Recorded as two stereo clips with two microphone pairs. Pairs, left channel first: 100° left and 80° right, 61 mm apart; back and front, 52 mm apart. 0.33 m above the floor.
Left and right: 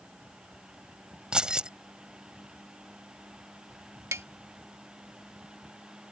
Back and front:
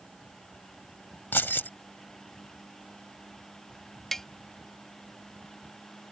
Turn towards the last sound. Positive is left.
turn(degrees=-100)